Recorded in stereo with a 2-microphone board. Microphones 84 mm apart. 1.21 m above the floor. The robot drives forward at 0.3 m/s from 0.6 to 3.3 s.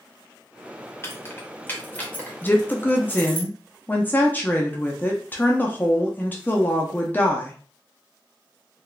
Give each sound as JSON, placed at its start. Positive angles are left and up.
{"t": 1.0, "sound": "keys jangling", "side_deg": 30, "distance_m": 0.7}
{"t": 2.4, "sound": "a woman speaking", "side_deg": 25, "distance_m": 0.5}